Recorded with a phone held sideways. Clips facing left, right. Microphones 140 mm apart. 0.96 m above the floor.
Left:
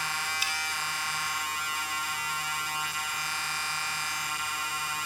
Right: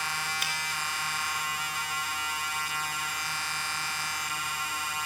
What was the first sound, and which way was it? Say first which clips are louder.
A finger snap: even; 55° right (ahead or behind).